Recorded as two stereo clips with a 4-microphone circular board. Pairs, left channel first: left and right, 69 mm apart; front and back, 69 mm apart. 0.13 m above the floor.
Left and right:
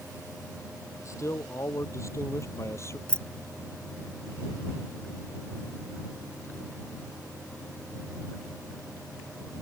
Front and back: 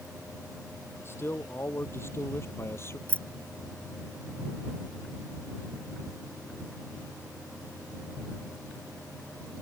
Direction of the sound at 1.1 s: 50° left.